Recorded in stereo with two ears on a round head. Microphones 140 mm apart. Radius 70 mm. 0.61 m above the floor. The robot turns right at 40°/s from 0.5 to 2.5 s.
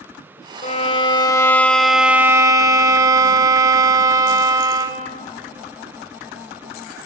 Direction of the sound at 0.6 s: 130° left.